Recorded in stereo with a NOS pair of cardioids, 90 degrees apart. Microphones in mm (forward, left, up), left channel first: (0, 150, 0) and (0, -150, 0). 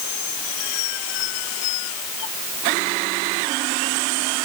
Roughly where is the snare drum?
I don't hear a snare drum.